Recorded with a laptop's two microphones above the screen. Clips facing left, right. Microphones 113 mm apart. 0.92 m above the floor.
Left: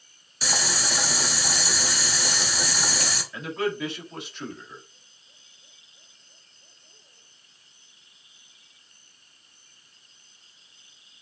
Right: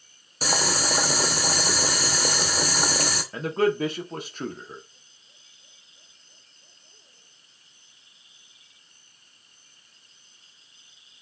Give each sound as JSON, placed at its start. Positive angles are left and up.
{"t": 0.4, "sound": "boiling", "side_deg": -45, "distance_m": 0.8}
{"t": 3.3, "sound": "a man speaking", "side_deg": -40, "distance_m": 0.9}